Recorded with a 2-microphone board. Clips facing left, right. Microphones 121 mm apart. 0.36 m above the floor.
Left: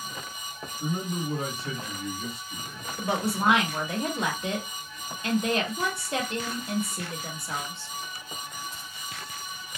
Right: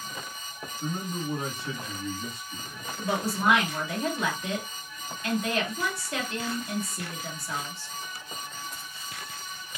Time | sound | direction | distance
0.8 | a man speaking | 40° left (ahead or behind) | 1.6 m
3.0 | a woman speaking | 25° left (ahead or behind) | 1.1 m